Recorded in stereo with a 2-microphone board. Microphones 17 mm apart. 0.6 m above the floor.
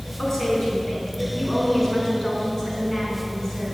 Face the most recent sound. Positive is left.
turn(degrees=20)  # may be behind; listen again after turning